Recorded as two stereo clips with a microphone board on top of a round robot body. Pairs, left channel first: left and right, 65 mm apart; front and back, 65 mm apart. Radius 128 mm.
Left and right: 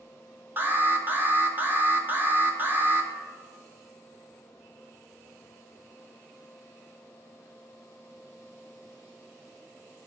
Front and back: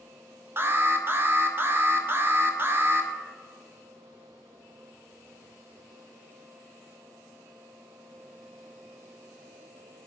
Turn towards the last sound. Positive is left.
turn(degrees=-135)